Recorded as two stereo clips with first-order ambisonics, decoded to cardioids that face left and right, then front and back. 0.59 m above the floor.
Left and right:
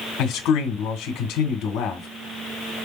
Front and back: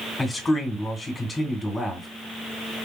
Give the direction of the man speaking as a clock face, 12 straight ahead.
9 o'clock.